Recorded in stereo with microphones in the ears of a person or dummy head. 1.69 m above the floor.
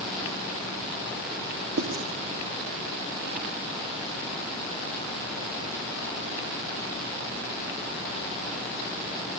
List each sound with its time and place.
1.8 s writing: 80° right, 4.5 m